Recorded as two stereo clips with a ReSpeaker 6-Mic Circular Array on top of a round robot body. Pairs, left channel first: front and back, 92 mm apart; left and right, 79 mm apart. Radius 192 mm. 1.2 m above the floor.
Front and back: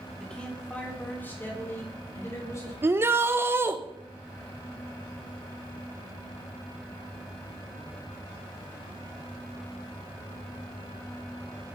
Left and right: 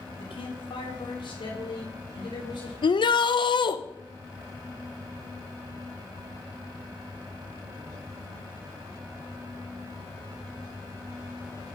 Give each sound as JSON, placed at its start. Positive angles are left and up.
{"t": 0.2, "sound": "a man speaking", "azimuth_deg": 85, "distance_m": 3.5}
{"t": 2.8, "sound": "a shout", "azimuth_deg": 115, "distance_m": 1.1}